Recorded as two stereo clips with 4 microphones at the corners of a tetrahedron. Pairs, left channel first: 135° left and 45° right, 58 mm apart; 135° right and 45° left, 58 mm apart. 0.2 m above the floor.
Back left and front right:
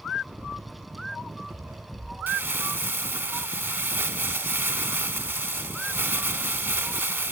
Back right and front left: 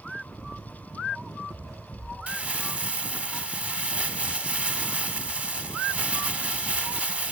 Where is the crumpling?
10° right, 0.8 m.